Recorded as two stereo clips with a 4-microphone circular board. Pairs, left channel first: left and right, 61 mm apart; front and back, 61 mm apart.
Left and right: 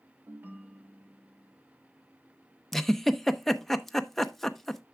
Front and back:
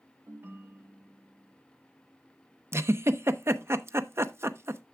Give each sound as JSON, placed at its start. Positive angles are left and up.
{"t": 0.3, "sound": "a ringtone", "azimuth_deg": -140, "distance_m": 1.1}
{"t": 2.7, "sound": "a giggle", "azimuth_deg": 175, "distance_m": 0.5}